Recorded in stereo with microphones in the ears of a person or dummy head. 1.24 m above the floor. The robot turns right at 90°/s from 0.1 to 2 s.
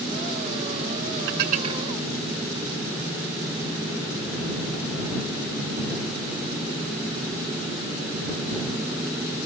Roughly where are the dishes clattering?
Right.